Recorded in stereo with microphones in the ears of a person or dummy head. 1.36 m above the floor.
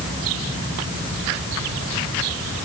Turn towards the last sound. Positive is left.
No sound to turn to.